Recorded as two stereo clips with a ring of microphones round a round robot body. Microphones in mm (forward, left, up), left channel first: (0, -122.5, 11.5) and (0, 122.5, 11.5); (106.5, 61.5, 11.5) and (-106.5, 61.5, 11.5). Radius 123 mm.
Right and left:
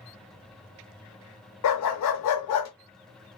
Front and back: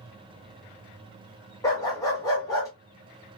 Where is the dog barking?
75° right, 0.7 m.